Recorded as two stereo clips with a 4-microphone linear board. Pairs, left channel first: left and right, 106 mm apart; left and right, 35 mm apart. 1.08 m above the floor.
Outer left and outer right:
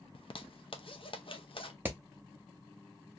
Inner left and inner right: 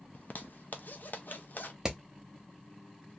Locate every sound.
0.1 s a zipper: 55° left (ahead or behind), 0.5 m
1.9 s hammering: 20° right (ahead or behind), 0.8 m